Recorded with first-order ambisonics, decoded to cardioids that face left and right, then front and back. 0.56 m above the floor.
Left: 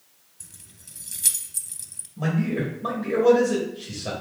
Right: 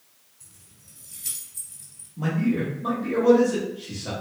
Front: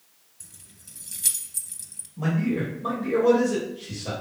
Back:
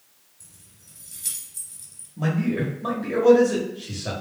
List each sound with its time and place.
0.4 s keys jangling: 60° left, 0.6 m
2.2 s a man speaking: 145° left, 1.3 m